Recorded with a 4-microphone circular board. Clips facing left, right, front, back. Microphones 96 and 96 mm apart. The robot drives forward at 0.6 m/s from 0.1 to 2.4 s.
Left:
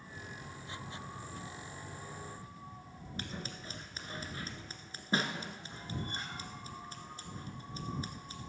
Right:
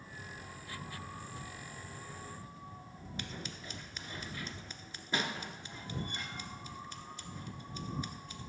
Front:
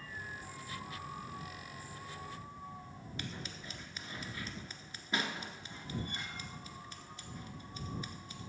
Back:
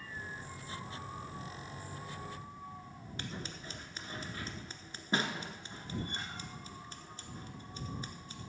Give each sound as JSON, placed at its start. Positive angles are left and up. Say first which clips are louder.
{"t": 3.2, "sound": "scissors", "louder": "left 2 dB, back 2 dB", "azimuth_deg": 130, "distance_m": 0.8}